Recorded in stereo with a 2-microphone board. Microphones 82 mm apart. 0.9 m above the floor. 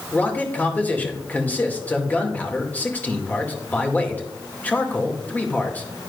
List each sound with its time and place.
0.1 s a man speaking: 20° left (ahead or behind), 2 m